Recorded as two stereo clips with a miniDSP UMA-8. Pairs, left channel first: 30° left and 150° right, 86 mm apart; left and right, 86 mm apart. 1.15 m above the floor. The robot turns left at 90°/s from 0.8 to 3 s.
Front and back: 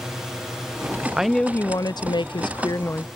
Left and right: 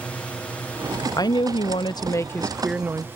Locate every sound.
0.0 s a drone: 135° left; by 3.2 s 70° right
1.2 s a woman speaking: 130° left; by 3.1 s 35° right